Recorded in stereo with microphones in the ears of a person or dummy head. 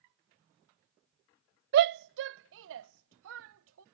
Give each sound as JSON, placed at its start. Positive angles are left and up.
{"t": 1.7, "sound": "a shout", "side_deg": -55}